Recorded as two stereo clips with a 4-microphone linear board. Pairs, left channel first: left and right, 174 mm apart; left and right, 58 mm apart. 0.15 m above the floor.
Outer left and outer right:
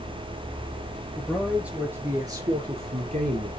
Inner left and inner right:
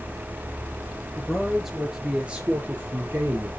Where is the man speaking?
5° left (ahead or behind), 3 m; by 3.5 s 50° right (ahead or behind), 3 m.